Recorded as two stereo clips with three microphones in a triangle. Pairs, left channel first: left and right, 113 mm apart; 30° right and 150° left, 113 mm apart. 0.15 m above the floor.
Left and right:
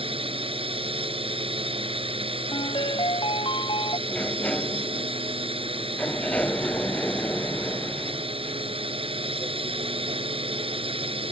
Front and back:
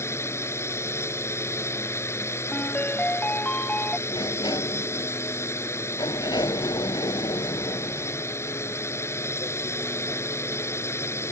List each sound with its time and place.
0.0 s a drone: 90° right
2.5 s a ringtone: 45° left
4.1 s a sliding door: 15° left